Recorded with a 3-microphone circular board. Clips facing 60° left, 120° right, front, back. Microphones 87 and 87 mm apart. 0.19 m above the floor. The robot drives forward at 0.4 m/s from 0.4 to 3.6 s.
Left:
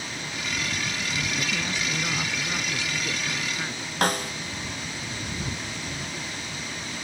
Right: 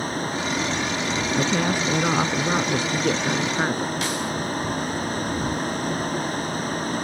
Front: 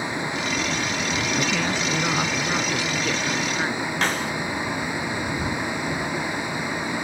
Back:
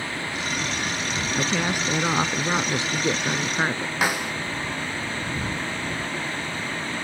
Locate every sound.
0.0 s a vehicle: 75° right
1.4 s a woman speaking: 100° right; by 4.0 s 125° right
4.0 s a snare drum: 100° left